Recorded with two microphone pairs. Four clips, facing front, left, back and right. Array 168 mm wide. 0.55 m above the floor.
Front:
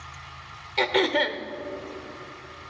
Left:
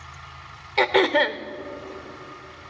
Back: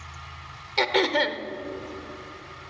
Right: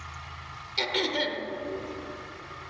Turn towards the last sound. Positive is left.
turn(degrees=110)